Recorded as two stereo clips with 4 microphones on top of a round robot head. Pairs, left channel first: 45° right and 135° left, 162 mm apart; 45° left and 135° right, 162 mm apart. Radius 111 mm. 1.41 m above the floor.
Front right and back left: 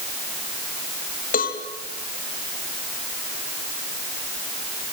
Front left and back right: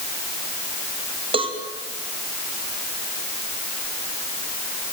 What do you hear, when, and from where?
1.3 s a cowbell: 80° right, 2.5 m